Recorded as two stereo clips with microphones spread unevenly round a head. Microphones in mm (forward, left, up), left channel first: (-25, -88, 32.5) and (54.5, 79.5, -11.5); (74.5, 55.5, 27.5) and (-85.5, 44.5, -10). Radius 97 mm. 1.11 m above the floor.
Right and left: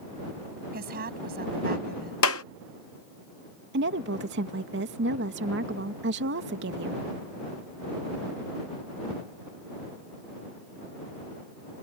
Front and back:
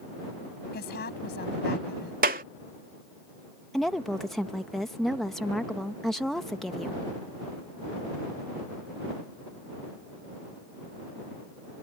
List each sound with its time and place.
0.7 s a woman speaking: 25° left
2.2 s a clap: 125° right
3.7 s a woman speaking: 95° left